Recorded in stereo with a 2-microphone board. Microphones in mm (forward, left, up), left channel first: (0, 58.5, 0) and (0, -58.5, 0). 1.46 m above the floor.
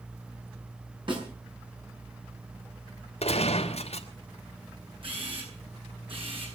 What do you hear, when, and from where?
1.1 s a snare drum: 45° right (ahead or behind), 6.5 m
3.2 s a gunshot: 60° left (ahead or behind), 2.5 m
5.0 s a camera shutter: 50° right (ahead or behind), 9 m